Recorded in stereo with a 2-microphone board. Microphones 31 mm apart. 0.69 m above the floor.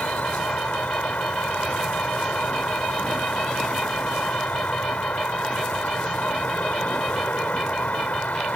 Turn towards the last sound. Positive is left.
turn(degrees=70)  # may be behind; listen again after turning